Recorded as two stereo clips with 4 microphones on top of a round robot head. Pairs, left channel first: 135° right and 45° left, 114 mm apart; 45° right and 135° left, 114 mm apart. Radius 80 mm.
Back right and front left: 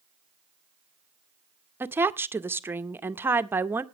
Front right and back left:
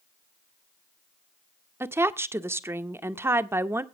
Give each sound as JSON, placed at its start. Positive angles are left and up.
{"t": 1.8, "sound": "a woman speaking", "azimuth_deg": 95, "distance_m": 0.8}